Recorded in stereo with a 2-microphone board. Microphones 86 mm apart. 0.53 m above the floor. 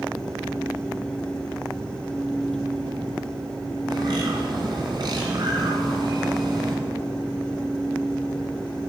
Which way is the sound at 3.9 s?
60° right (ahead or behind).